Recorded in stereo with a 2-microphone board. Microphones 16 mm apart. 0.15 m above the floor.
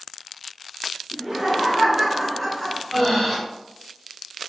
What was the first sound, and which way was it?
Laughter, 45° right (ahead or behind).